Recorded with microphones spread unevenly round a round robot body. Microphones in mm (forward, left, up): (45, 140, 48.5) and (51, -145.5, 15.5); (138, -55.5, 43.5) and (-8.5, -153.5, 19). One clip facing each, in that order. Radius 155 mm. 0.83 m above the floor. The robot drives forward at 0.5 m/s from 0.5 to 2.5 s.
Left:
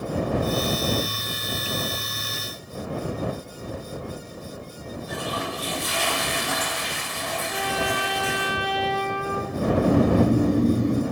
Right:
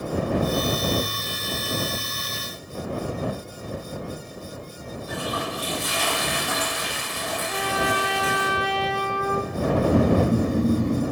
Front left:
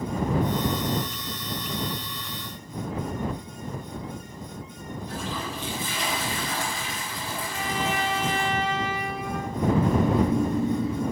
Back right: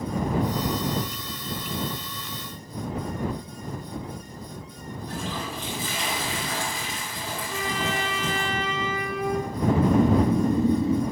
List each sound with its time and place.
5.1 s a toilet flushing: straight behind, 5 m
7.5 s a trumpet: straight behind, 0.7 m
9.5 s snoring: 170° left, 1.4 m